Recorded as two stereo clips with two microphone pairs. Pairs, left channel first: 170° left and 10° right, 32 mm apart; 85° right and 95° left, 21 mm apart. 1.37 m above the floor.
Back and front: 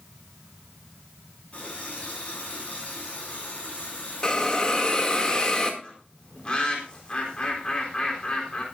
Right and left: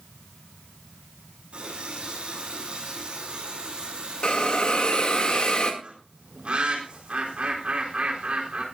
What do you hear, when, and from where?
1.5 s a running tap: 120° left, 9 m
4.2 s a hiss: 125° right, 2.5 m
5.8 s a bird: 110° left, 4 m